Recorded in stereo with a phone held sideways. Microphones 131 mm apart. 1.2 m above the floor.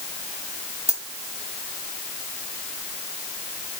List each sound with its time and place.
0.9 s a dropped coin: 55° right (ahead or behind), 2.5 m